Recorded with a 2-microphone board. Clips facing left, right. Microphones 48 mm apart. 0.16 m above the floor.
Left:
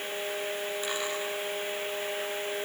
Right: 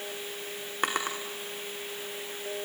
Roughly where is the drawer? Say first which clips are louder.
Right 7 dB; right.